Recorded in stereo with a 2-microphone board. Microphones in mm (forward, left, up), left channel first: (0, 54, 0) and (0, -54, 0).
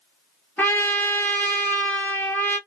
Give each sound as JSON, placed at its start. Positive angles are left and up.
{"t": 0.6, "sound": "a trumpet", "side_deg": 15, "distance_m": 1.1}